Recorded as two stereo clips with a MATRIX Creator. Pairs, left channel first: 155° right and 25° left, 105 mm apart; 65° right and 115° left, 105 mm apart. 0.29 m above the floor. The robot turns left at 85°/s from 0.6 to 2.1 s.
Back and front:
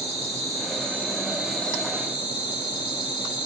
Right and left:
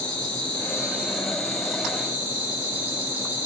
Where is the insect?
10° left, 2 m; by 3.5 s 115° right, 2 m.